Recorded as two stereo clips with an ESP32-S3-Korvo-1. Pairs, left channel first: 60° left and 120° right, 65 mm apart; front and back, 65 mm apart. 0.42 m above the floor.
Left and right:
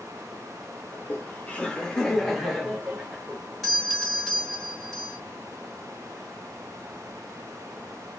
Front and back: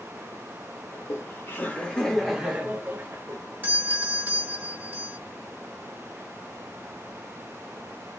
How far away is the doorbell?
About 2.0 m.